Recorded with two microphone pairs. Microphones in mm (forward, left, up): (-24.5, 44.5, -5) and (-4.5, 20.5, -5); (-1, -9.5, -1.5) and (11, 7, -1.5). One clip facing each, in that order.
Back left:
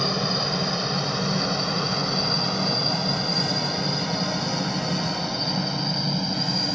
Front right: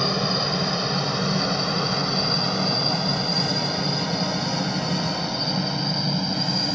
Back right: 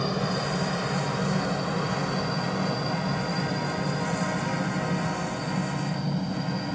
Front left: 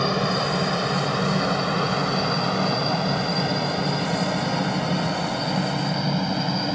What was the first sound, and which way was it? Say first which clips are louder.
A helicopter: front right 1 dB, front left 5 dB; 25° left.